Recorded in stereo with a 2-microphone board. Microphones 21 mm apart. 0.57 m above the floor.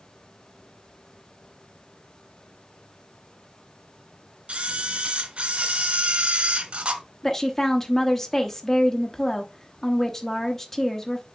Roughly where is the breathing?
No breathing in this recording.